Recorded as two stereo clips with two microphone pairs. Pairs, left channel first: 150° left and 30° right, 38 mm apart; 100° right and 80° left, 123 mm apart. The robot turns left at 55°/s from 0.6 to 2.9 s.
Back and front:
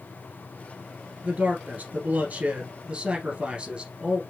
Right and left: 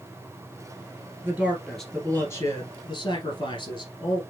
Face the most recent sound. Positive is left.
turn(degrees=-75)